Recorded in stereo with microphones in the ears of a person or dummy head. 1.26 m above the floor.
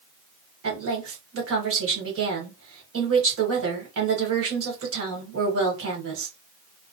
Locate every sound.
0.6 s a woman speaking: 65° right (ahead or behind), 1.2 m